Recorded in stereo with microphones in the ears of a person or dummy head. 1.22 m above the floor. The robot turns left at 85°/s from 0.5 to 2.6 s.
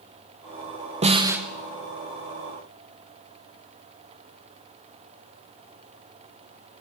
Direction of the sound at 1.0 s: 145° right.